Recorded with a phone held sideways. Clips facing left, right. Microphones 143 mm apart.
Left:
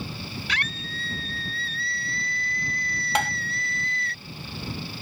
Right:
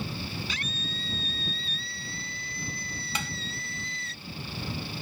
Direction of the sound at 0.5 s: 80° left.